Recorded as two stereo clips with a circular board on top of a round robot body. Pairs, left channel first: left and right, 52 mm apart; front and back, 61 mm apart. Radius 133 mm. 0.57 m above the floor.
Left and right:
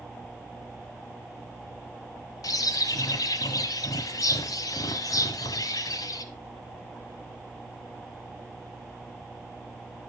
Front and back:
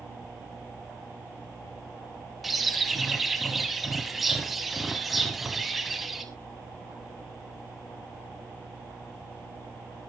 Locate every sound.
2.4 s a bird: 90° left, 0.6 m